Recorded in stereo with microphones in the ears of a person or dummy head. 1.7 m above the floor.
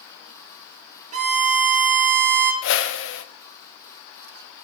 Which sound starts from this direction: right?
A violin, at 1.1 s.